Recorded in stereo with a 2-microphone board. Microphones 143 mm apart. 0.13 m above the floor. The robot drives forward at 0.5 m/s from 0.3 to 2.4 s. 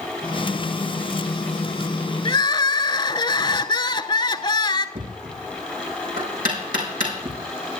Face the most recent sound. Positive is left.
turn(degrees=-75)  # may be behind; listen again after turning